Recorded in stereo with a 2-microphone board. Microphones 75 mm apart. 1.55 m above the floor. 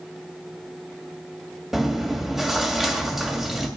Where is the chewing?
5° right (ahead or behind), 2.5 m.